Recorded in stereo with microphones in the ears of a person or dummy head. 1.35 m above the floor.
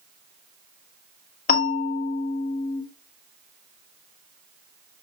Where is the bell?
45° left (ahead or behind), 2.5 m.